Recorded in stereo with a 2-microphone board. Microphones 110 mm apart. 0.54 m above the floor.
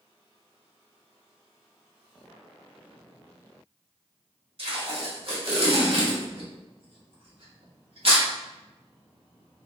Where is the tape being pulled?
60° right (ahead or behind), 1.3 m.